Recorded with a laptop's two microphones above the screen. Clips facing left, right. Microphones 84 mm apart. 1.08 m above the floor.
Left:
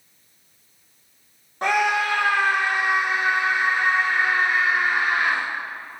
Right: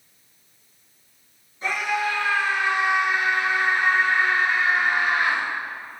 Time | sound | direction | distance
1.6 | a scream | 65° left (ahead or behind) | 1.1 m